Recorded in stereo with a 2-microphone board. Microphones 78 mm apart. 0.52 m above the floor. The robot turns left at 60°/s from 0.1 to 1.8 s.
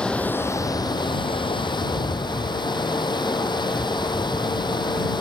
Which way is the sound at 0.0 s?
170° left.